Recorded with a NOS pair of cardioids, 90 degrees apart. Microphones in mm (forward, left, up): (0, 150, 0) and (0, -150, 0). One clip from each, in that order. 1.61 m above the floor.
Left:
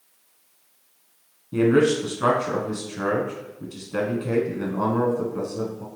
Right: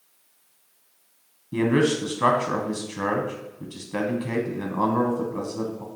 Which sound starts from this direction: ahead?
A man speaking, at 1.5 s.